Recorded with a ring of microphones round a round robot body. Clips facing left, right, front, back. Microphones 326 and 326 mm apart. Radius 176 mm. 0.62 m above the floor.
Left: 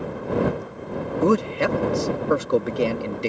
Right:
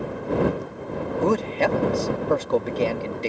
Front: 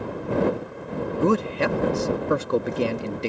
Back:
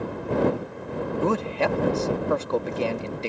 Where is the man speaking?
40° left.